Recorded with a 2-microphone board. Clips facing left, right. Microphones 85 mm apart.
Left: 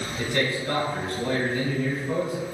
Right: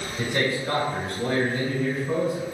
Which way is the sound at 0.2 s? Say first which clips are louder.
Right 1 dB; 20° right (ahead or behind).